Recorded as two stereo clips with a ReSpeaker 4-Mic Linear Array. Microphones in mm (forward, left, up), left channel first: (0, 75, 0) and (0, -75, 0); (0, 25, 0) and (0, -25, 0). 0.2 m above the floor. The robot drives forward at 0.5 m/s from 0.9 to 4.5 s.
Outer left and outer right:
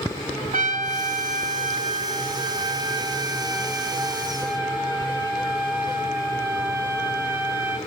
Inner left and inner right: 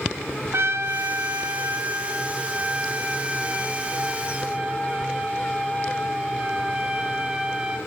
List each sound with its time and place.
0.5 s a trumpet: 60° right (ahead or behind), 0.6 m; by 7.8 s 15° right (ahead or behind), 1.8 m